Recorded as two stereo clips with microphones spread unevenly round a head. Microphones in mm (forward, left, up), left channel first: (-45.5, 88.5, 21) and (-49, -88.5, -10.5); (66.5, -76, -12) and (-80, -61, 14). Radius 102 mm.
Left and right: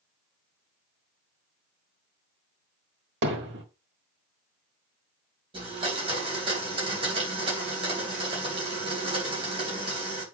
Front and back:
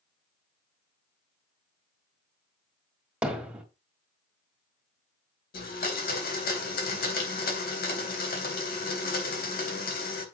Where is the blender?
20° right, 3.5 m.